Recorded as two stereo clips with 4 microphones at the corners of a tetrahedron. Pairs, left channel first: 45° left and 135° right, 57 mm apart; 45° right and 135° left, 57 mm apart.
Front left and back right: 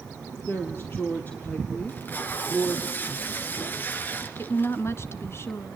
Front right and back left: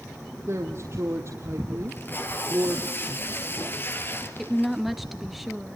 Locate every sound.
0.5 s a woman speaking: 95° left, 3 m; by 2.9 s 120° left, 2 m
1.9 s tape being pulled: straight ahead, 2.5 m
4.4 s a woman speaking: 45° left, 1.6 m